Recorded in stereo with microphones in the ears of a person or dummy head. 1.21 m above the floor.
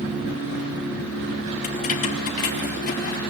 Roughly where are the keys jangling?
Left.